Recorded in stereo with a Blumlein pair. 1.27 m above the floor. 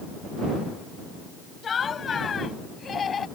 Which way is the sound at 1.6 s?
20° left.